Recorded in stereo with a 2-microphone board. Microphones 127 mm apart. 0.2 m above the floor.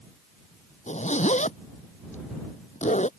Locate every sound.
0.9 s a zipper: 60° left (ahead or behind)